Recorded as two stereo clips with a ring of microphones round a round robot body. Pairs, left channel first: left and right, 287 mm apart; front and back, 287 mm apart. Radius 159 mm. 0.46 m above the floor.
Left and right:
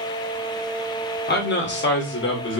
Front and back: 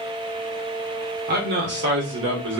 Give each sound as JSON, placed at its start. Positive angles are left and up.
{"t": 1.3, "sound": "a man speaking", "azimuth_deg": 135, "distance_m": 1.3}